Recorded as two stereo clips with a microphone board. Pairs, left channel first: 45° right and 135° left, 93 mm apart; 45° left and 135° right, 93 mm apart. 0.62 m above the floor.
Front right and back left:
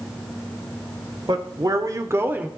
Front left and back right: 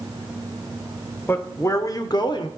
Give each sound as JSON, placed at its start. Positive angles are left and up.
{"t": 1.3, "sound": "a man speaking", "azimuth_deg": 105, "distance_m": 1.9}